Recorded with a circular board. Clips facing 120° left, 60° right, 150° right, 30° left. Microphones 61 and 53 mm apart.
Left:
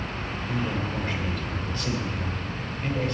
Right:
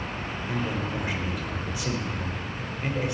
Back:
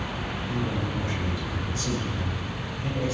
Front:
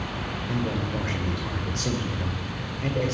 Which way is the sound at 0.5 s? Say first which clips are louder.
Even, front 2 dB; 20° left.